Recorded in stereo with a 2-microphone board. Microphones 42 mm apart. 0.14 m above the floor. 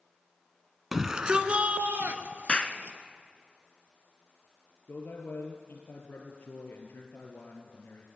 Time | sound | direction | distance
0.9 | a shout | 10° right (ahead or behind) | 1.2 m
2.5 | a clap | 30° left (ahead or behind) | 1.1 m
4.9 | a man speaking | 60° left (ahead or behind) | 3 m